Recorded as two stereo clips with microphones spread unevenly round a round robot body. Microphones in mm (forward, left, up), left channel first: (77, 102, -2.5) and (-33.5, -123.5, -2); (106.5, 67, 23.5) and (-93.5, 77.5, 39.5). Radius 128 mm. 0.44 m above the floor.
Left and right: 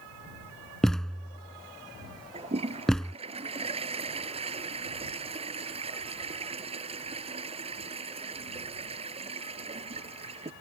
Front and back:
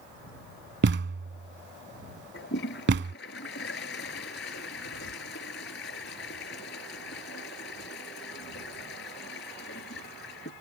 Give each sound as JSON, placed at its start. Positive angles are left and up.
{"t": 0.8, "sound": "a thud", "azimuth_deg": 150}
{"t": 2.3, "sound": "a toilet flushing", "azimuth_deg": -50}